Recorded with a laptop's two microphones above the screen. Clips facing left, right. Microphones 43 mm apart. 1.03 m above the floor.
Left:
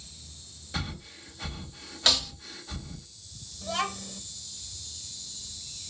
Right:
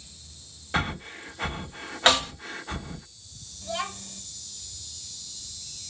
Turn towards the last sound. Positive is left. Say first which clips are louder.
# left 1 dB
turn(degrees=65)  # may be behind; listen again after turning